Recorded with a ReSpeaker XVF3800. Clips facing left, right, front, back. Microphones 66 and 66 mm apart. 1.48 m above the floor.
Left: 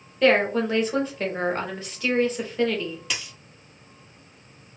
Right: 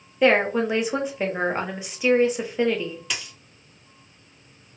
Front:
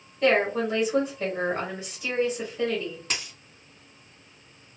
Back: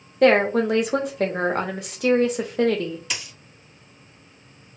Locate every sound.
0.2 s a woman speaking: 165° right, 0.7 m
3.1 s a dropped coin: 5° left, 1.8 m